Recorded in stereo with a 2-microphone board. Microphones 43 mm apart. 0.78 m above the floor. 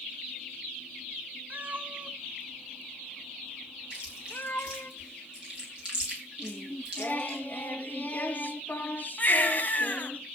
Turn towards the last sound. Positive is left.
turn(degrees=35)  # may be behind; listen again after turning